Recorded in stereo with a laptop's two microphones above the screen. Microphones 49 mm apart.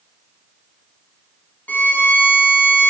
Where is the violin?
35° left (ahead or behind), 3 m.